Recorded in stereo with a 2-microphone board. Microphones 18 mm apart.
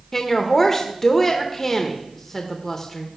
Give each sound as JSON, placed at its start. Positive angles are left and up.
{"t": 0.1, "sound": "a woman speaking", "side_deg": 25, "distance_m": 0.8}